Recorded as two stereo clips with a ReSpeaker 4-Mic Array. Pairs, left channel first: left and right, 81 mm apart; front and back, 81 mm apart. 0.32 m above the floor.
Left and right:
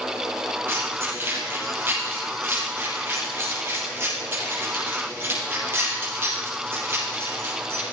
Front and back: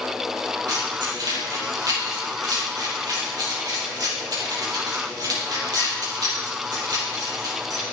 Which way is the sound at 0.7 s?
150° right.